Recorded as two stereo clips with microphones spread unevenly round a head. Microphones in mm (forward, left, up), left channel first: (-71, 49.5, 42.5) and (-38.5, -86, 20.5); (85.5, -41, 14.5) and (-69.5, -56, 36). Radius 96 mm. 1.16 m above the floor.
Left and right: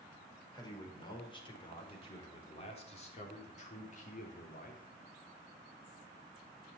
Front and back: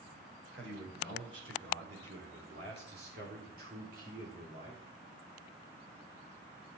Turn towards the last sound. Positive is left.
turn(degrees=125)